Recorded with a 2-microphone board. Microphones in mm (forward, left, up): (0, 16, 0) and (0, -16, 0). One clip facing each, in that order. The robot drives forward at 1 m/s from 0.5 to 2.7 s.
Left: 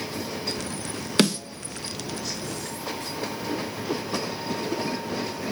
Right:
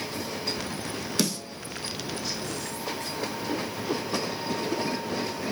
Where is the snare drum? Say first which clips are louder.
Left 7 dB; 50° left (ahead or behind), 1.5 m; by 1.4 s 45° left (ahead or behind), 1.7 m.